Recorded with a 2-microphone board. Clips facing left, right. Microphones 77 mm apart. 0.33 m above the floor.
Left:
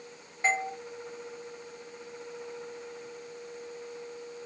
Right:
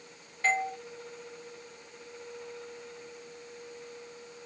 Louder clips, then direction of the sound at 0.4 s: Even; 20° left (ahead or behind).